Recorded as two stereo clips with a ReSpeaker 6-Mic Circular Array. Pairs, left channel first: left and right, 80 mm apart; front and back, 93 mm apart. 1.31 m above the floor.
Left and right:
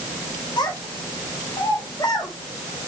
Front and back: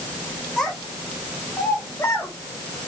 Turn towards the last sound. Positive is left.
turn(degrees=55)